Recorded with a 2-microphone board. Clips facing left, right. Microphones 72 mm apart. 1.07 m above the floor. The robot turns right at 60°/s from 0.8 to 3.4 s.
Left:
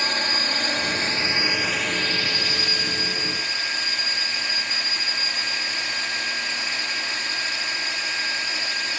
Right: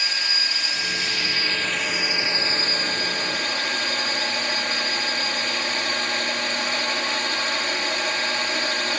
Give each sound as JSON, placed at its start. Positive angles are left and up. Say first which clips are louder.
{"t": 0.0, "sound": "a drone", "louder": "left 3 dB", "azimuth_deg": 120}